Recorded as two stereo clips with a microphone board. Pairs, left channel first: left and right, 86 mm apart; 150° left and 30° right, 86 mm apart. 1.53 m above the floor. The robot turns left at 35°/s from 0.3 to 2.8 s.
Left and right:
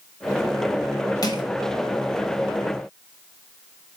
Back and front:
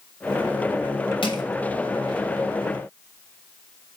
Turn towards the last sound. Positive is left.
turn(degrees=75)